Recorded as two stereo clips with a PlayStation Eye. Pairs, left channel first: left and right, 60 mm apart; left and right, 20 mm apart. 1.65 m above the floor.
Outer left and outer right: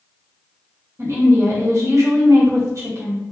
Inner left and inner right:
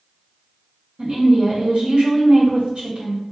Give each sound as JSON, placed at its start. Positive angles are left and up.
{"t": 1.0, "sound": "a woman speaking", "side_deg": -55, "distance_m": 2.0}